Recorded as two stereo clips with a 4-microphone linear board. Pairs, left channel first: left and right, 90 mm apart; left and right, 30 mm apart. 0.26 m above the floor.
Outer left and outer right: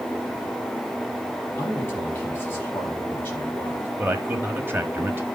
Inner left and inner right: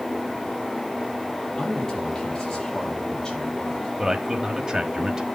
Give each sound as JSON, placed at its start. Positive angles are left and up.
{"t": 1.6, "sound": "a man speaking", "side_deg": 25, "distance_m": 6.0}
{"t": 4.0, "sound": "a man speaking", "side_deg": -25, "distance_m": 1.3}